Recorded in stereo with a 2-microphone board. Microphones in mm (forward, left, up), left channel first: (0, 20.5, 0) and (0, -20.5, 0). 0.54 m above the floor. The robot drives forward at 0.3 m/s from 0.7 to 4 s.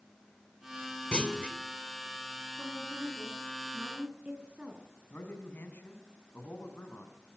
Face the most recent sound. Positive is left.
turn(degrees=55)  # may be behind; listen again after turning